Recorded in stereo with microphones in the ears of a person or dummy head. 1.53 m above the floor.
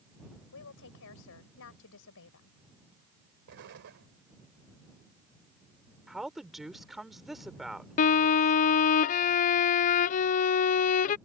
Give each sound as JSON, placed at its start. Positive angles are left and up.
{"t": 0.5, "sound": "a woman speaking", "side_deg": 75}
{"t": 3.5, "sound": "an explosion", "side_deg": -65}
{"t": 6.1, "sound": "a woman speaking", "side_deg": 0}
{"t": 8.0, "sound": "a violin", "side_deg": 45}